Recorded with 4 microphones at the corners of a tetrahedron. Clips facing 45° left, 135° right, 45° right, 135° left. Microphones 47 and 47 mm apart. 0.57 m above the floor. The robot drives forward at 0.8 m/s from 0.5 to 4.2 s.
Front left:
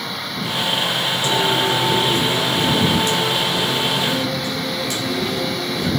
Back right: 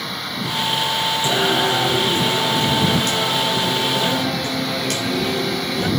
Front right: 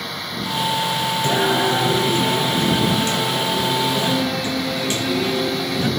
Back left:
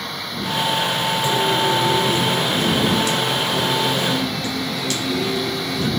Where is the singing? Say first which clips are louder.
Even, front right 1 dB; 75° right, 4 m; by 5.9 s 110° right, 4 m.